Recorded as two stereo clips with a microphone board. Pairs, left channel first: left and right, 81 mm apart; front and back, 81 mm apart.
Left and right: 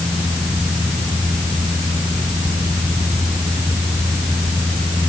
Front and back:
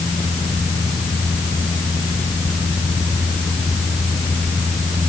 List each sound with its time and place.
Only background noise.